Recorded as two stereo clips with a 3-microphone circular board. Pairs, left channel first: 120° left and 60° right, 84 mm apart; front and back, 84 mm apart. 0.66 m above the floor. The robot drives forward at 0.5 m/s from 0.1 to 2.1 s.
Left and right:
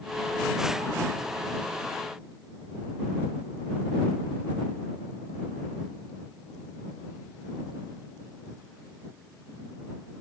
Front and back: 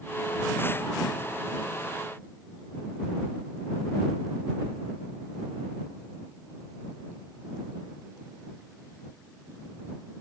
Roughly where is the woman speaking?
No woman speaking in this recording.